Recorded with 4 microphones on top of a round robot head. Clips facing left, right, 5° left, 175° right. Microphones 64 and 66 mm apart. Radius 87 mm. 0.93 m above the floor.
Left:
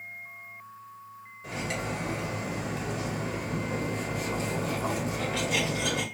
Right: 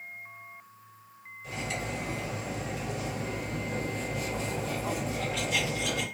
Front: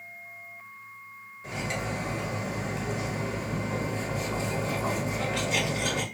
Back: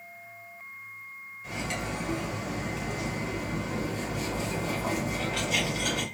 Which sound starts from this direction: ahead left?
Cutlery clinking, at 1.4 s.